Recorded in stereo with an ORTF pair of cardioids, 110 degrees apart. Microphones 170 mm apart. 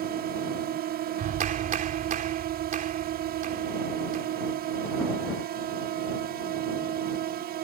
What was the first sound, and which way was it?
A drone, 70° right.